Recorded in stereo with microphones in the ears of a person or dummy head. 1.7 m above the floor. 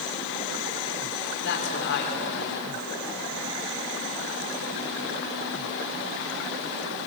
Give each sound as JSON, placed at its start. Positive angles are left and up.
{"t": 1.4, "sound": "a man speaking", "side_deg": 60, "distance_m": 5.5}